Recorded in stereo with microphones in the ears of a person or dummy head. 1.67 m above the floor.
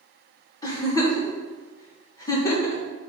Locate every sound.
0.6 s a giggle: 15° left (ahead or behind), 1.4 m